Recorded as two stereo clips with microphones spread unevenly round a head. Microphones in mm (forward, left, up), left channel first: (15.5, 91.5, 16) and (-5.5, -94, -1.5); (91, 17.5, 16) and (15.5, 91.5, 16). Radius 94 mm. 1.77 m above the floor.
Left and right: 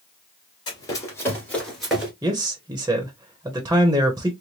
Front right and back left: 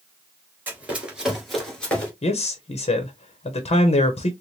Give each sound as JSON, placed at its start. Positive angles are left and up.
{"t": 0.7, "sound": "running footsteps", "azimuth_deg": 80, "distance_m": 1.9}
{"t": 2.2, "sound": "a man speaking", "azimuth_deg": -20, "distance_m": 0.8}